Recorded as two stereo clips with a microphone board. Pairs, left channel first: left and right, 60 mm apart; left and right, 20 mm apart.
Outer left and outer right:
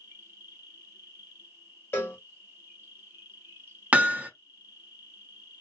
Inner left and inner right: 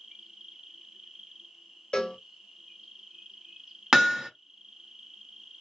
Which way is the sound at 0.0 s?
30° right (ahead or behind).